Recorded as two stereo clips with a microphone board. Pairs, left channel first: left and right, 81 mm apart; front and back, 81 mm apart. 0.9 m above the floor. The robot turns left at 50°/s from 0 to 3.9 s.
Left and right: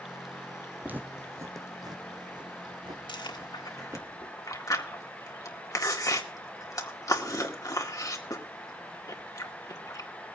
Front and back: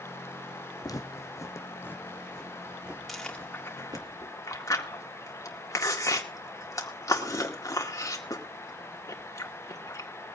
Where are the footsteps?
25° right, 1.5 m; by 4.1 s 150° right, 3 m.